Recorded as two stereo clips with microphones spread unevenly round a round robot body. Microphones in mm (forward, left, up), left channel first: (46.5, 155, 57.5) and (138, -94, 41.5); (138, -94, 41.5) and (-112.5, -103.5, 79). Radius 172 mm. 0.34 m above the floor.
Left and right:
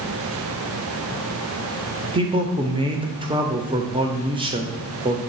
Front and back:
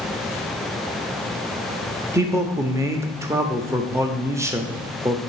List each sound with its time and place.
2.1 s a man speaking: 95° right, 0.9 m